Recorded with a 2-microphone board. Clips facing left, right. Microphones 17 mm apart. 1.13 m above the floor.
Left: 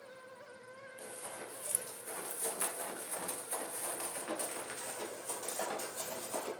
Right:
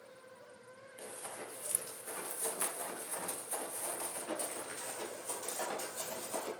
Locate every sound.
1.0 s running footsteps: 15° right (ahead or behind), 1.5 m; by 6.5 s 30° left (ahead or behind), 2 m